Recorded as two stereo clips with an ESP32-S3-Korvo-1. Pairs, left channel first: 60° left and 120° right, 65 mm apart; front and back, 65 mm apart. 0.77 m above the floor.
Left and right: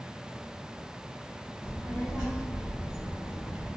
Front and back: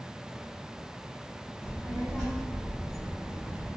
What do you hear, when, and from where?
1.6 s a child speaking: 70° left, 1.6 m; by 3.8 s 140° right, 0.6 m